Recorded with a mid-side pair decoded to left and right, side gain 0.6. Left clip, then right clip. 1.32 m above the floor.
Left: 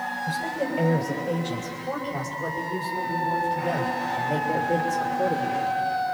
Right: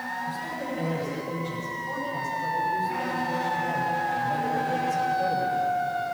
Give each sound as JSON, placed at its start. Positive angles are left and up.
{"t": 0.3, "sound": "a woman speaking", "azimuth_deg": 55, "distance_m": 6.0}